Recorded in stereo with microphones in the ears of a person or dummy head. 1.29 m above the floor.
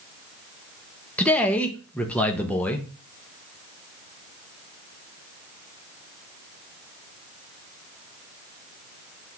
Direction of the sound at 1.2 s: 5° left (ahead or behind).